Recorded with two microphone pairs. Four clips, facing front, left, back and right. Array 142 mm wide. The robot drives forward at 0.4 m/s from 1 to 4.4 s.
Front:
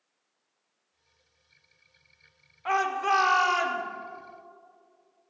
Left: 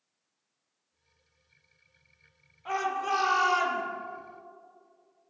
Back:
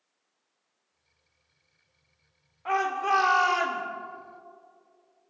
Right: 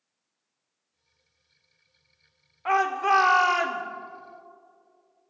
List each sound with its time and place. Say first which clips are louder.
2.6 s a shout: right 7 dB, even; 70° right, 1.3 m; by 3.8 s 95° right, 1.3 m